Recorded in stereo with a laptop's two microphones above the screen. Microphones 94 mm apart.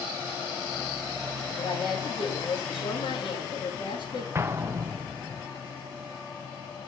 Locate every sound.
1.6 s a woman speaking: 65° left (ahead or behind), 2 m
4.3 s an explosion: 25° right (ahead or behind), 0.6 m